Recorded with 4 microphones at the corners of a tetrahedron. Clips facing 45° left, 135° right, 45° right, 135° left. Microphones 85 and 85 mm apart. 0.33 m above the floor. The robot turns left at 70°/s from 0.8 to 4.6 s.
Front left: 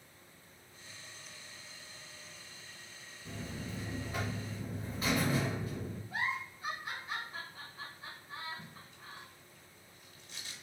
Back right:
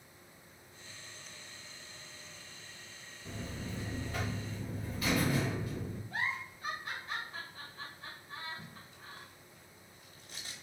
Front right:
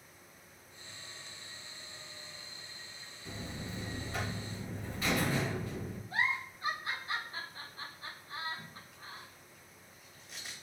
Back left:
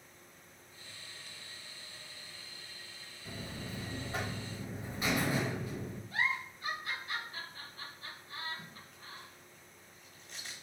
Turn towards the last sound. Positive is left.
turn(degrees=-125)